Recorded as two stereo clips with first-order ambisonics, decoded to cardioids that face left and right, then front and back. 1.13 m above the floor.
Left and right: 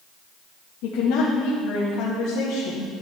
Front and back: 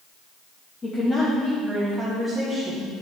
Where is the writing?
I don't hear writing.